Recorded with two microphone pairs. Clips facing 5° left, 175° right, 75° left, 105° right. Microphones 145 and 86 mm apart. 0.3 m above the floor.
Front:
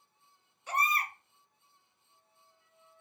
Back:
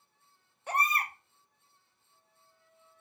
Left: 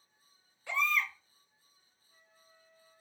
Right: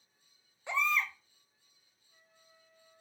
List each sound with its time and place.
0.7 s a baby crying: 170° right, 0.5 m